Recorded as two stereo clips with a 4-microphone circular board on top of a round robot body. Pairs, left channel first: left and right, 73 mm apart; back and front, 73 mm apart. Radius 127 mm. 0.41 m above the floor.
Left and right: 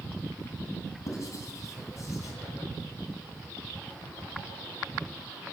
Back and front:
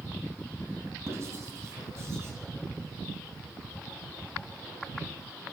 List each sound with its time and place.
1.1 s writing: 45° left, 2.5 m